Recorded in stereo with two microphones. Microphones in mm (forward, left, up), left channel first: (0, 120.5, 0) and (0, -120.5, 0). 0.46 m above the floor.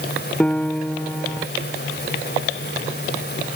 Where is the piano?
5° left (ahead or behind).